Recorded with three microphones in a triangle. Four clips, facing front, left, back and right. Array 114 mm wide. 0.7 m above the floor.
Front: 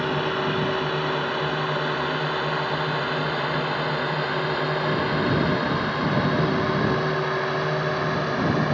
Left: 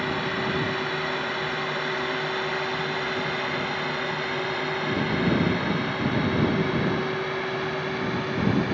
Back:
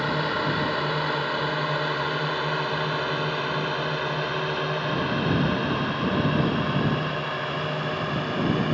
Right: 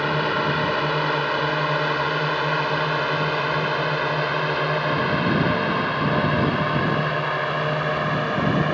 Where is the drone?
100° right; by 8.8 s 70° right.